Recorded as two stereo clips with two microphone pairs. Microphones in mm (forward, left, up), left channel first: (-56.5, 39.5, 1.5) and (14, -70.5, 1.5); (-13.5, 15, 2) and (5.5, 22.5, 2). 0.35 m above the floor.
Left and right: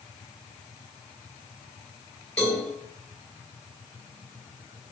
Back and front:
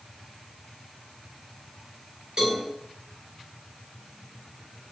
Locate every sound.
2.4 s a cowbell: 40° left, 2.0 m